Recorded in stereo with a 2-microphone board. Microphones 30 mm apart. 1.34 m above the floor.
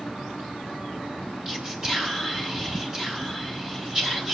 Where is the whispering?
20° right (ahead or behind), 5 m.